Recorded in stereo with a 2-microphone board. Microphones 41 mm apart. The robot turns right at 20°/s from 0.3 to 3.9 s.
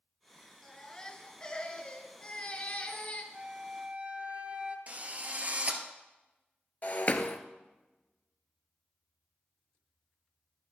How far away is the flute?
About 1.2 m.